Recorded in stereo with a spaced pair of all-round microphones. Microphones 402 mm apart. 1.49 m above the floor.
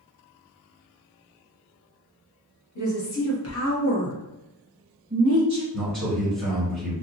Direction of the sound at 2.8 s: 50° left (ahead or behind).